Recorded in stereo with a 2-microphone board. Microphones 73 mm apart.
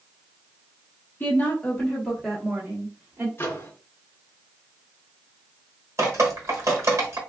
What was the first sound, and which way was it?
A woman speaking, 30° left (ahead or behind).